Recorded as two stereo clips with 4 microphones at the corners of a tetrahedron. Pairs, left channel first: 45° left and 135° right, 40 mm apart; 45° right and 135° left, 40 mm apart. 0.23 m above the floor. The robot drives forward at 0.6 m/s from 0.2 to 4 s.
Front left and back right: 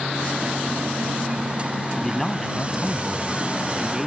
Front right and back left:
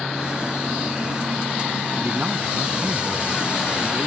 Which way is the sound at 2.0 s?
120° left.